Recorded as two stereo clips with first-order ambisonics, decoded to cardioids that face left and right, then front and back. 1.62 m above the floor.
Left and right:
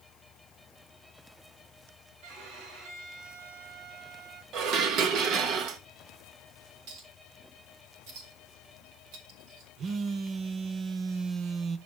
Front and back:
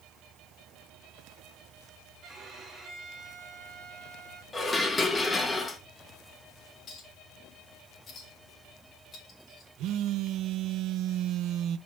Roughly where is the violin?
Behind right.